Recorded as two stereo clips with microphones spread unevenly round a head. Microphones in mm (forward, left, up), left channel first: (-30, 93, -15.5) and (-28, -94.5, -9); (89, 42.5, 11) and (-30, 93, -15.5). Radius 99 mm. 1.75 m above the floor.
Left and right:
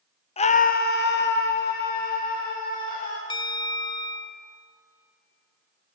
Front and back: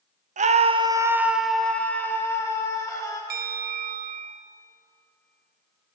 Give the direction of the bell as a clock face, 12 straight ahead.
7 o'clock.